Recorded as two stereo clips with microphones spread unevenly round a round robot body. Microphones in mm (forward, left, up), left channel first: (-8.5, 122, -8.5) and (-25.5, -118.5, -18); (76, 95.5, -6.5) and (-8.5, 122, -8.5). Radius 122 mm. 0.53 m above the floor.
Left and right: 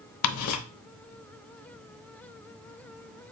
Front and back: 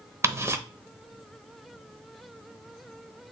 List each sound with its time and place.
0.2 s ticking: 100° left, 0.9 m